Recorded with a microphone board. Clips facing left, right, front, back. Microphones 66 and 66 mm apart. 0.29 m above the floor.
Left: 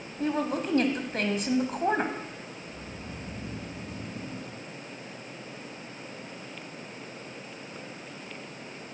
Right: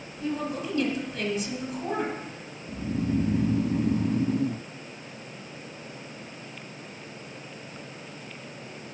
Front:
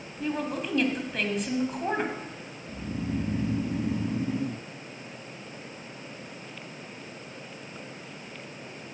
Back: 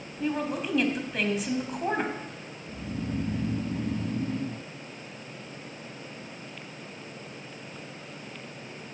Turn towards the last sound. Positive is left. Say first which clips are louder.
# right 12 dB, front 1 dB
turn(degrees=-75)